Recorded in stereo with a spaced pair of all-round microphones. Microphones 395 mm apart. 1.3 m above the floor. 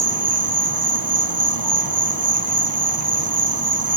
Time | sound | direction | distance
0.0 | an insect | 60° right (ahead or behind) | ?